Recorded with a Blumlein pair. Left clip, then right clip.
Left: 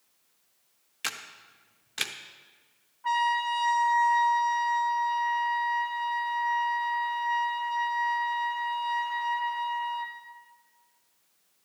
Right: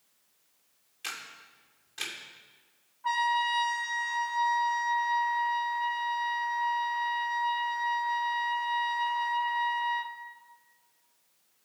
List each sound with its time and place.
1.0 s a camera shutter: 30° left, 0.6 m
3.0 s a trumpet: straight ahead, 0.6 m